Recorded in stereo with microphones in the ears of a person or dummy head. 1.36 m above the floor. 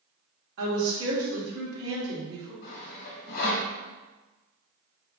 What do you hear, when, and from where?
0.6 s a woman speaking: 65° right (ahead or behind), 1.4 m
2.6 s sawing: 50° left (ahead or behind), 1.1 m